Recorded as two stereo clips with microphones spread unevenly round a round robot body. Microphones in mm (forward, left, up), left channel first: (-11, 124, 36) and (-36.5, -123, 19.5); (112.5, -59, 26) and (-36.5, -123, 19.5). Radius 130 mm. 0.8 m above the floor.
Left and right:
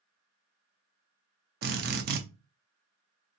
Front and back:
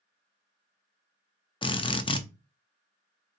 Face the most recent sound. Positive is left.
turn(degrees=-40)